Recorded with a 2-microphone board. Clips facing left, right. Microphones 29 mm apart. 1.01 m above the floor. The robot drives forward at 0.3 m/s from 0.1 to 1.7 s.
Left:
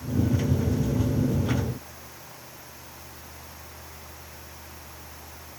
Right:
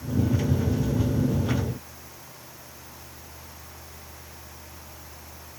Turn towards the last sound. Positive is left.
No sound to turn to.